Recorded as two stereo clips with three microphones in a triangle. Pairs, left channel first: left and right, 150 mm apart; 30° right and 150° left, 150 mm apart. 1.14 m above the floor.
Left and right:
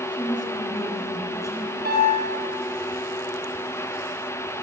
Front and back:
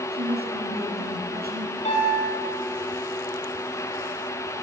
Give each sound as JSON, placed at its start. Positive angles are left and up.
{"t": 0.1, "sound": "a woman speaking", "azimuth_deg": 155, "distance_m": 8.5}
{"t": 1.9, "sound": "a piano", "azimuth_deg": -75, "distance_m": 8.0}